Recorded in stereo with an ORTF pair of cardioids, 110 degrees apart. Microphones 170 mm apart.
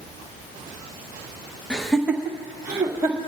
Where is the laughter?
5° left, 0.9 m; by 3.2 s 25° right, 2 m.